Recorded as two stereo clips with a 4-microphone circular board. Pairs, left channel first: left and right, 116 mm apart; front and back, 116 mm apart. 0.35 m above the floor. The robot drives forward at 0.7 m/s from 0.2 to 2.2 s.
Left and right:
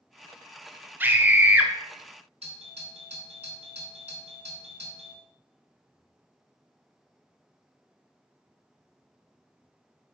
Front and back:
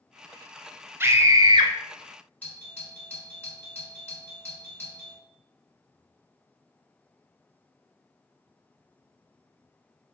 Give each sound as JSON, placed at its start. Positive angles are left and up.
{"t": 1.0, "sound": "a scream", "azimuth_deg": -140, "distance_m": 0.9}
{"t": 2.4, "sound": "a doorbell", "azimuth_deg": -75, "distance_m": 4.0}